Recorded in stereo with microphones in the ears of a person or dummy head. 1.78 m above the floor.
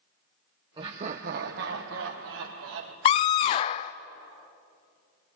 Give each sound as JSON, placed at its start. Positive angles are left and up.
{"t": 0.8, "sound": "laughter", "side_deg": -25, "distance_m": 1.2}
{"t": 3.0, "sound": "a scream", "side_deg": 30, "distance_m": 0.5}